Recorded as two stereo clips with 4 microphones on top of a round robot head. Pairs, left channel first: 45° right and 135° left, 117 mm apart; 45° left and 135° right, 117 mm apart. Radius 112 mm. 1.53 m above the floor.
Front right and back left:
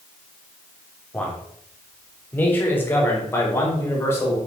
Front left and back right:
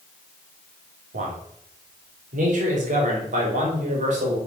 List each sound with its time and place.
1.1 s a man speaking: 130° right, 3.5 m; by 4.4 s 115° right, 5.5 m